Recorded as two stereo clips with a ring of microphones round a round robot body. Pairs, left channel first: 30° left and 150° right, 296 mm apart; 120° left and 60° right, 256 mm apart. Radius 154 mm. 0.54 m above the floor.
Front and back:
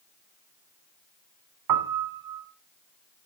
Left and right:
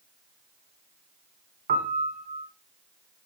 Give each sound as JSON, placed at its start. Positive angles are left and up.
{"t": 1.7, "sound": "a piano", "azimuth_deg": -125, "distance_m": 1.0}